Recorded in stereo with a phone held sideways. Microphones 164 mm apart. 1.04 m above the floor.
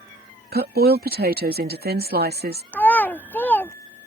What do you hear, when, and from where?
0.5 s a woman speaking: 70° right (ahead or behind)
2.7 s a child speaking: 10° left (ahead or behind)